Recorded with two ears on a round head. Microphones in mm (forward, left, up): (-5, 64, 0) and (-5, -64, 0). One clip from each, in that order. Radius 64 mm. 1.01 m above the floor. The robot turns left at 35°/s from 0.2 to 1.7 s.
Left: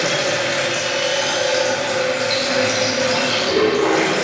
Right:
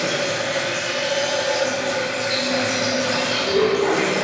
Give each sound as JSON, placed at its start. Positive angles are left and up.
{"t": 0.0, "sound": "running water", "azimuth_deg": 65, "distance_m": 3.0}